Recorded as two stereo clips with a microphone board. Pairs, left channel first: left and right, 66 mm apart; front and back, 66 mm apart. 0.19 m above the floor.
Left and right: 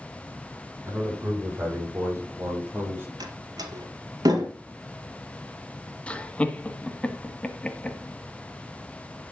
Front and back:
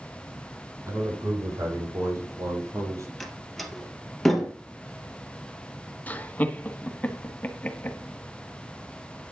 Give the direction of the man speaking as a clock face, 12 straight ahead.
4 o'clock.